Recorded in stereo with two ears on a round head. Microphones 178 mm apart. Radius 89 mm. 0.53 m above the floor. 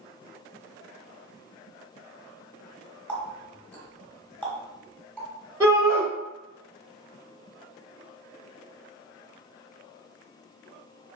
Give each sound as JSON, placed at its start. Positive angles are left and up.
{"t": 3.1, "sound": "a running tap", "side_deg": 5, "distance_m": 0.7}
{"t": 5.6, "sound": "a shout", "side_deg": 10, "distance_m": 1.8}